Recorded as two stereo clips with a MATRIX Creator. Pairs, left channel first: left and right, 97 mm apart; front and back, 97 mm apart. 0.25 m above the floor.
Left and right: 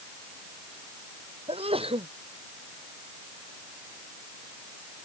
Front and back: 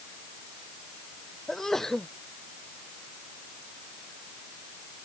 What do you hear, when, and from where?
1.5 s a sneeze: 85° right